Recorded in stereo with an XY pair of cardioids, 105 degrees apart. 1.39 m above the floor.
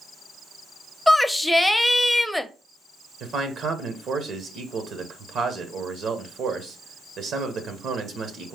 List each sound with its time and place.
1.1 s a shout: 10° left, 0.6 m
3.2 s a man speaking: 60° right, 1.0 m